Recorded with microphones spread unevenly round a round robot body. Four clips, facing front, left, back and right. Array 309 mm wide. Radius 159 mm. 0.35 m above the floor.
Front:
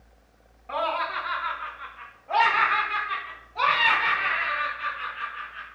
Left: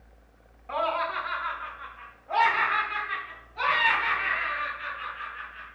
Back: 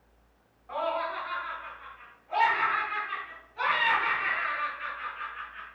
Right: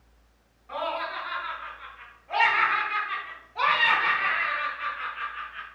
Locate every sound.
0.7 s laughter: 40° left, 2.5 m; by 5.7 s 70° right, 3 m